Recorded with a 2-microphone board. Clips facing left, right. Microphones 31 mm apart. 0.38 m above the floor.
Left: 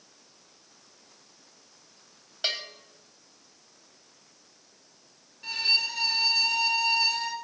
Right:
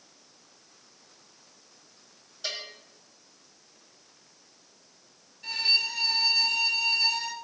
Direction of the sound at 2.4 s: 60° left (ahead or behind).